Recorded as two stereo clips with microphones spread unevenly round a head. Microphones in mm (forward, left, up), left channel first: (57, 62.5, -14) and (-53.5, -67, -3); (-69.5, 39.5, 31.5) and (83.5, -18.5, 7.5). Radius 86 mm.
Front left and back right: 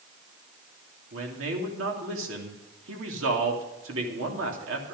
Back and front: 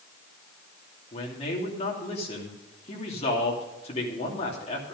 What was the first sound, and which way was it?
A man speaking, 140° right.